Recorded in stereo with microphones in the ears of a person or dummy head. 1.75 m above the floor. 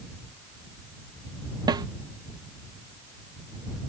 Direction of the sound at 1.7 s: 25° right (ahead or behind).